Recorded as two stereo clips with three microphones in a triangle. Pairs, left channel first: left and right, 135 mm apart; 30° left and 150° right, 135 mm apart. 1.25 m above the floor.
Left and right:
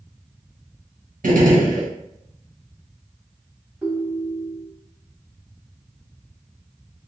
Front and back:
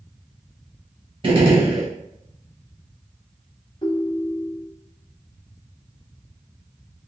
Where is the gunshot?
100° right, 1.4 m.